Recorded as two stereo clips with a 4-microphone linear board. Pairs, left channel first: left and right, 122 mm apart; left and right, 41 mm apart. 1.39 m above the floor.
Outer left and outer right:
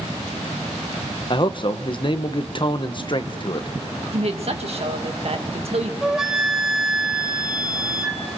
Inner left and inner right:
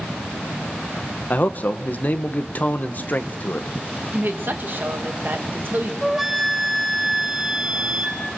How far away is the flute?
About 1.7 m.